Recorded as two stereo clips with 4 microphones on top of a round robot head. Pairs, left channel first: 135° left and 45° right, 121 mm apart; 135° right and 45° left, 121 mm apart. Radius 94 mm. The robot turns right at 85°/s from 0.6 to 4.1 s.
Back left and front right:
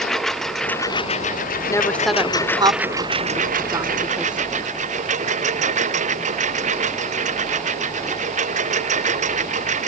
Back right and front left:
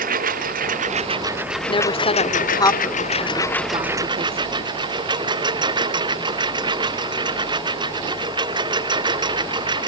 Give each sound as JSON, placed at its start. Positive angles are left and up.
{"t": 0.0, "sound": "a lawn mower", "azimuth_deg": 50}
{"t": 1.7, "sound": "a woman speaking", "azimuth_deg": -170}